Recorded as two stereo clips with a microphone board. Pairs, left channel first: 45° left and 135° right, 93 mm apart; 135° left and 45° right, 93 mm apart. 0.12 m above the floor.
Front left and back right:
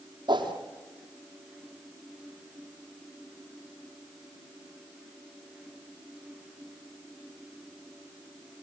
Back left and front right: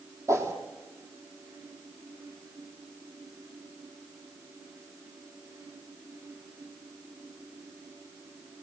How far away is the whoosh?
About 3 m.